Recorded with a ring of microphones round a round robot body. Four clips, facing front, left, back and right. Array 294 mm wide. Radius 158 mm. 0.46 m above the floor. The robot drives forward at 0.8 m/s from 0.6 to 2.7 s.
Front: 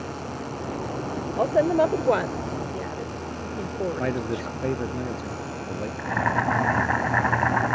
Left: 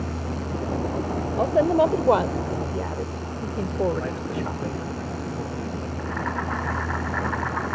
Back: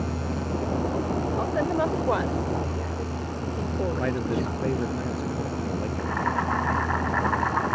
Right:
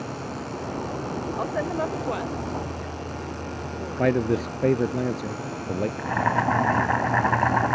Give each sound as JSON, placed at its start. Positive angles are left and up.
{"t": 1.4, "sound": "a woman speaking", "azimuth_deg": 45}
{"t": 4.0, "sound": "a man speaking", "azimuth_deg": -95}
{"t": 6.0, "sound": "boiling", "azimuth_deg": -50}